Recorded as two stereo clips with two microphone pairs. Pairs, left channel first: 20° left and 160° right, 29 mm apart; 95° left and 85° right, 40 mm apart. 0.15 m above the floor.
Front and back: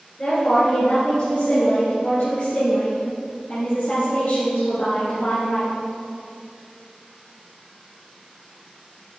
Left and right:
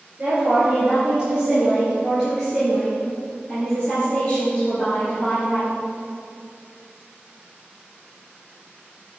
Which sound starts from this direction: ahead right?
A woman speaking, at 0.2 s.